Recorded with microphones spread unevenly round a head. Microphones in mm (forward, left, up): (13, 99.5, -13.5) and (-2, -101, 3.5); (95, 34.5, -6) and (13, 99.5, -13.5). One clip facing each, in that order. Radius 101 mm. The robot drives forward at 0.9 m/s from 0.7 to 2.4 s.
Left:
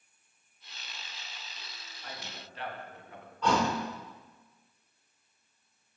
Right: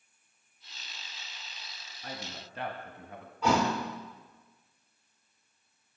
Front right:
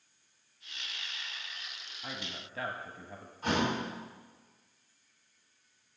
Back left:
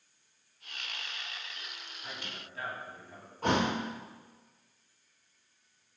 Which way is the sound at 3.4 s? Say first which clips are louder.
Right 1 dB, back left 2 dB; 175° right.